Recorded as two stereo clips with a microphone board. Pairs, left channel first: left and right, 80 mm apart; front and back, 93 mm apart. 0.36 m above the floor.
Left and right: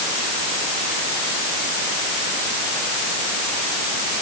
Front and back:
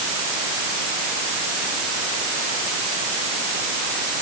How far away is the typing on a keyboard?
I don't hear typing on a keyboard.